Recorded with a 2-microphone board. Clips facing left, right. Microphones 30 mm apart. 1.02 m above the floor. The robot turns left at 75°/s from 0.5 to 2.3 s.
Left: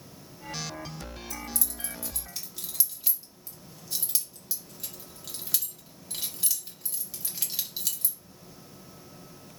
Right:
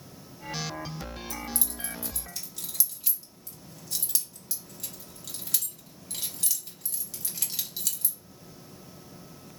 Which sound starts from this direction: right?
Keys jangling, at 1.3 s.